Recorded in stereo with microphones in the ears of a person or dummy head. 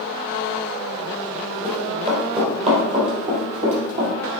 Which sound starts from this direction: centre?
Running footsteps, at 1.6 s.